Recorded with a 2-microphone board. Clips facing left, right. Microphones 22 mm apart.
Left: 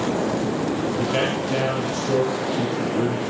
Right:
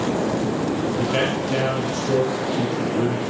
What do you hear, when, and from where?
1.0 s a man speaking: 5° right (ahead or behind), 3 m